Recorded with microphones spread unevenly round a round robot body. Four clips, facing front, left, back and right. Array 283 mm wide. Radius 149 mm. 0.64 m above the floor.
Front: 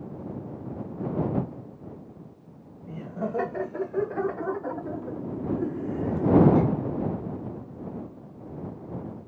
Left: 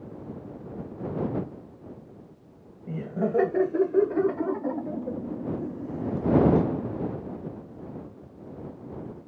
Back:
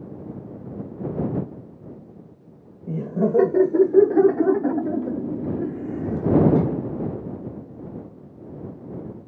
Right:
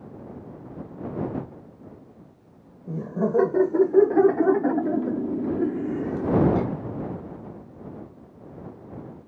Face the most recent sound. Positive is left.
turn(degrees=-55)